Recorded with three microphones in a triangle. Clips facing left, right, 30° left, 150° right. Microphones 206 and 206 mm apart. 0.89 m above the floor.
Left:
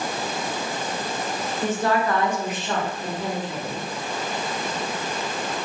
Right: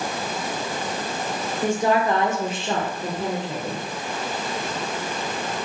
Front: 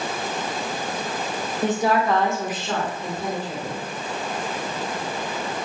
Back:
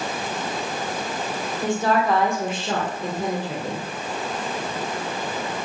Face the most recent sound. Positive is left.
turn(degrees=-150)